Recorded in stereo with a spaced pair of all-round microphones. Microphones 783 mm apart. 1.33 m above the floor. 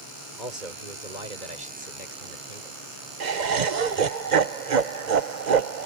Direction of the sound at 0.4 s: 70° right (ahead or behind).